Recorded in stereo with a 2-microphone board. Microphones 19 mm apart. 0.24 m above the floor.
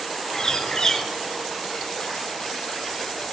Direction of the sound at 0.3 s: 45° left (ahead or behind).